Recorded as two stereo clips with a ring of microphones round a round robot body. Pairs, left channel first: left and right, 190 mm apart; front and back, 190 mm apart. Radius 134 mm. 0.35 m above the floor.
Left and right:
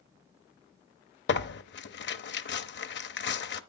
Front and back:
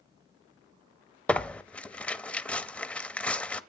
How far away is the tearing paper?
About 0.8 m.